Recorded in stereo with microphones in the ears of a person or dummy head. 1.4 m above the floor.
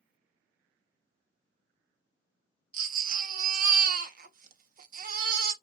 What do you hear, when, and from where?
2.7 s a baby crying: 55° right (ahead or behind), 0.8 m